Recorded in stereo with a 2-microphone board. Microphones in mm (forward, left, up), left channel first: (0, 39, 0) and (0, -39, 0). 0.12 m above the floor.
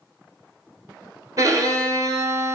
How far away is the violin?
About 0.6 m.